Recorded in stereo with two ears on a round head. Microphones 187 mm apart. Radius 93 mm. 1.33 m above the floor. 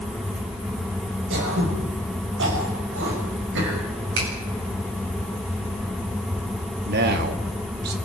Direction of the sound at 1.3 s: 60° right (ahead or behind).